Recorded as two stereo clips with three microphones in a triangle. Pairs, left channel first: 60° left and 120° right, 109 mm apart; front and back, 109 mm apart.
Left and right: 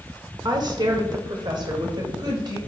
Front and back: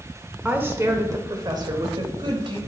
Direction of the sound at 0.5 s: 115° right.